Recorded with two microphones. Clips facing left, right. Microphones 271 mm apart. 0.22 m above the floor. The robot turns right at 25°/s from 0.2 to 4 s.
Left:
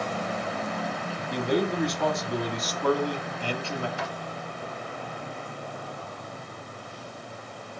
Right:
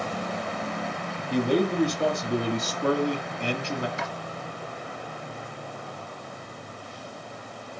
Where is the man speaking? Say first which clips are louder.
Right 3 dB; 95° right, 1.6 m; by 3.9 s 35° right, 1.6 m.